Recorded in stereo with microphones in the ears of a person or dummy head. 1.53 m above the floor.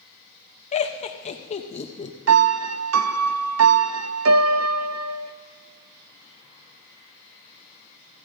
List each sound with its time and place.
0.7 s laughter: 35° left (ahead or behind), 0.8 m
2.3 s a piano: 90° right, 0.6 m